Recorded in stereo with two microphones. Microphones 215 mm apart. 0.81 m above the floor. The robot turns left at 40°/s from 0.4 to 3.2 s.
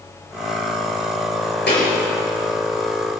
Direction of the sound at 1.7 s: 65° left (ahead or behind).